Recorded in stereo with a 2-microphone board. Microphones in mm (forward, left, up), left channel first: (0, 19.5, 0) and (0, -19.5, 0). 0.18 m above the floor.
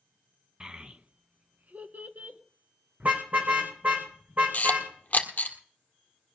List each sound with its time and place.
0.6 s a child speaking: 25° right (ahead or behind), 0.9 m; by 2.4 s 60° right (ahead or behind), 1.7 m
3.0 s a car horn: 50° right (ahead or behind), 4.5 m
4.5 s a camera shutter: 40° left (ahead or behind), 1.6 m